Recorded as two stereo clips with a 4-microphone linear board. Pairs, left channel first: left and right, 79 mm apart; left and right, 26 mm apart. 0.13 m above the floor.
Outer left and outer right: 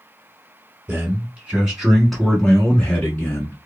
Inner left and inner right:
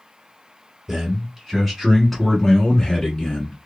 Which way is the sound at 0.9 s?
20° right (ahead or behind).